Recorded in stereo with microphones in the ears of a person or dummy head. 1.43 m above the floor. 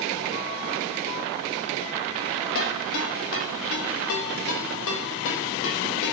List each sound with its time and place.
2.5 s a ringtone: 75° left (ahead or behind), 1.5 m